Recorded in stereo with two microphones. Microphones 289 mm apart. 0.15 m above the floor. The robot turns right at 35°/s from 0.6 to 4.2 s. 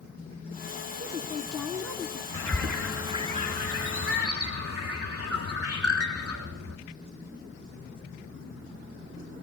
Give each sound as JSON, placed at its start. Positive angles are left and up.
{"t": 1.0, "sound": "a woman speaking", "side_deg": -5, "distance_m": 1.2}
{"t": 2.3, "sound": "a bird", "azimuth_deg": 170, "distance_m": 3.0}